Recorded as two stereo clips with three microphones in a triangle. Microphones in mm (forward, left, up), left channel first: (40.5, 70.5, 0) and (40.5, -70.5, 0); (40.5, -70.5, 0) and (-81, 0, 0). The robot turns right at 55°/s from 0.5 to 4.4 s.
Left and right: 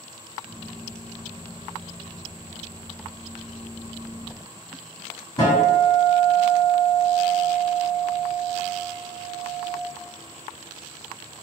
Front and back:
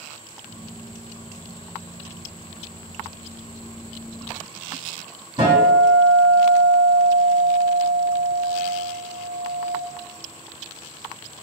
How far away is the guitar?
About 1.8 m.